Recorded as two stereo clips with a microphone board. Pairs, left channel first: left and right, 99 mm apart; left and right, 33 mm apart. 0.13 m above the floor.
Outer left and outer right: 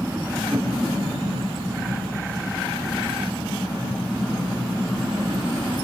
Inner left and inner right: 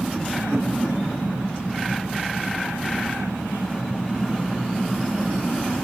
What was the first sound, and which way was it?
A whoosh, 20° right (ahead or behind).